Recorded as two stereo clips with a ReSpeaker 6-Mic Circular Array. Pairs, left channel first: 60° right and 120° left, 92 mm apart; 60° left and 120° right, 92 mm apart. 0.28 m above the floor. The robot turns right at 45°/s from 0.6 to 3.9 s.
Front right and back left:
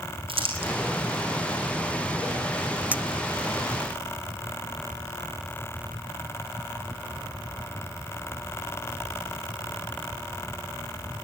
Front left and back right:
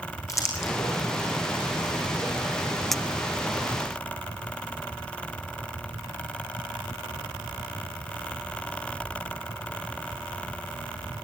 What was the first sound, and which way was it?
Crumpling, 115° left.